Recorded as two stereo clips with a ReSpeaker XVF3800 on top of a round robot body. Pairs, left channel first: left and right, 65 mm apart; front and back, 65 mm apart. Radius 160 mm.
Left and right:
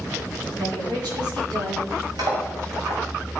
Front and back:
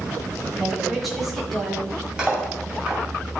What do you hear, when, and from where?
0.6 s a woman speaking: 90° right, 5 m; by 1.9 s 85° right, 6.5 m
2.2 s cutlery clinking: 105° right, 3.5 m